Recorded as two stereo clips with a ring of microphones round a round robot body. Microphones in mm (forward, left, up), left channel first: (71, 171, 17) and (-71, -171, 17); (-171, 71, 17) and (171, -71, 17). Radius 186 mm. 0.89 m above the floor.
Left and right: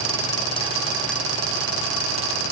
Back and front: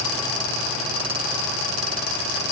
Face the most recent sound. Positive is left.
No sound to turn to.